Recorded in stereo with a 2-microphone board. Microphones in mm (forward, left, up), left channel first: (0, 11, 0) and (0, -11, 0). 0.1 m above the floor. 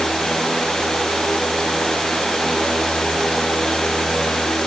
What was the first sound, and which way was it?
Only background noise.